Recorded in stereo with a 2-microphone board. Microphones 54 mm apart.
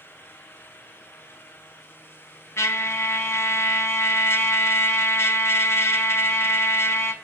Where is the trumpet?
50° left (ahead or behind), 0.5 m.